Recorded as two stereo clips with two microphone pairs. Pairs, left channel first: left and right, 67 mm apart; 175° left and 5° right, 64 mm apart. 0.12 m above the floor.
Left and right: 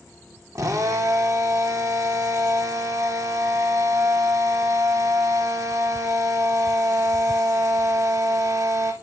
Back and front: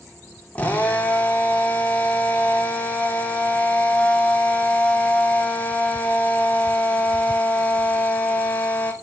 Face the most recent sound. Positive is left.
turn(degrees=-120)